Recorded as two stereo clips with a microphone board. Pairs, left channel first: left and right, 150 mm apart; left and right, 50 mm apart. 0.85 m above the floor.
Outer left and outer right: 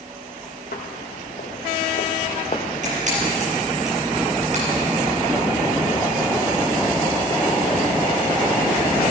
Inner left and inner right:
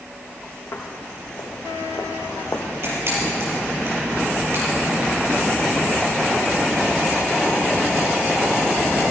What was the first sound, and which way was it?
Footsteps, 65° left (ahead or behind).